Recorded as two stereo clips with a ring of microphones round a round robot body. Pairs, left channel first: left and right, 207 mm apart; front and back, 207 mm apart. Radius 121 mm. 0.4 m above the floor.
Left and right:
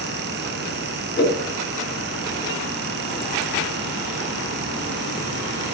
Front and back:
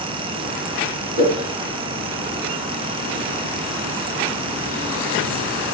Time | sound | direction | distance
1.2 | a whoosh | 120° left | 3 m